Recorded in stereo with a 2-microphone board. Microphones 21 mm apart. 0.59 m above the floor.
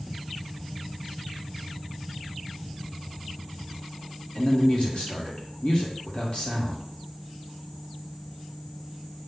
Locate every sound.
4.3 s a man speaking: 50° left (ahead or behind), 1.8 m